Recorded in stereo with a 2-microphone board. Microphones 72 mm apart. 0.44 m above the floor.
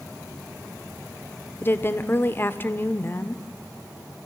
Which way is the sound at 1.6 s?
30° left (ahead or behind).